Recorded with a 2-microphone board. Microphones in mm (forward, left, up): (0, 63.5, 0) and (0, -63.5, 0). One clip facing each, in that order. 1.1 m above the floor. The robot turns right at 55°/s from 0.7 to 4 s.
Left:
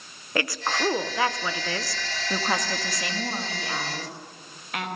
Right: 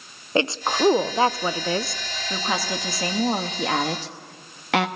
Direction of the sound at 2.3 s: 170° left.